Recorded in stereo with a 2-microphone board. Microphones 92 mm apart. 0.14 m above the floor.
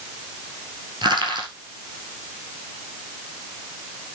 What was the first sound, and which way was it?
Crushing, 55° right (ahead or behind).